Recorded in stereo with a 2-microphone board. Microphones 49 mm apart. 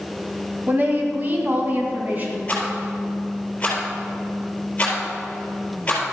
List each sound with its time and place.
0.7 s a woman speaking: 40° right (ahead or behind), 1.9 m; by 2.4 s 35° right (ahead or behind), 3 m
2.5 s a rattle: 20° left (ahead or behind), 3.5 m